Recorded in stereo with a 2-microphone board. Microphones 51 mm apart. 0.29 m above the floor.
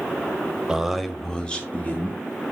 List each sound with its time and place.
0.7 s a man speaking: 15° right (ahead or behind), 1.0 m; by 2.2 s 35° left (ahead or behind), 1.5 m